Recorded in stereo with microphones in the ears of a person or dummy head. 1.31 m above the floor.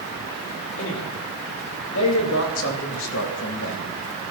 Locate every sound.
0.8 s a man speaking: 80° left, 3 m; by 3.8 s 65° left (ahead or behind), 1.4 m